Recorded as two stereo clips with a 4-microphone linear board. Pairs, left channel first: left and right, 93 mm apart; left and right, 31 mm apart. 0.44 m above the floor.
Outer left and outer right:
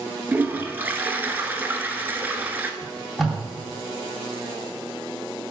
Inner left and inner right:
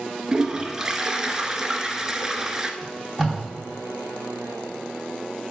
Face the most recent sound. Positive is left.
turn(degrees=0)  # may be behind; listen again after turning